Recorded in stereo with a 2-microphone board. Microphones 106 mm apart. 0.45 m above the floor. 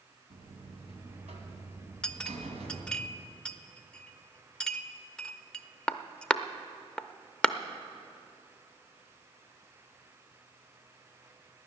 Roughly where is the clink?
Centre.